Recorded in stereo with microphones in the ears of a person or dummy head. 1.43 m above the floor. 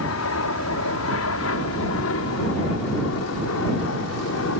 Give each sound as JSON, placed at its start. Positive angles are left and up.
{"t": 0.0, "sound": "an aircraft", "side_deg": 70}